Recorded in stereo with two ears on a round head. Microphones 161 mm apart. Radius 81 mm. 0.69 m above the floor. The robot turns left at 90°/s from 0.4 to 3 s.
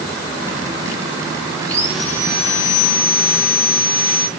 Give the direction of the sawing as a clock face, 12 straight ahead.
5 o'clock.